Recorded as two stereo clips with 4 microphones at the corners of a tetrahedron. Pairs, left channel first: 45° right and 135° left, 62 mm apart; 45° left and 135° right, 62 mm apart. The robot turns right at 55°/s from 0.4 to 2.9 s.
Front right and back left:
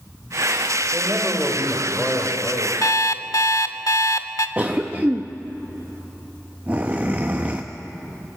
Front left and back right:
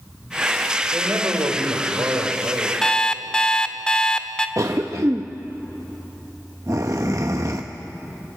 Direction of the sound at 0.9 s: Straight behind.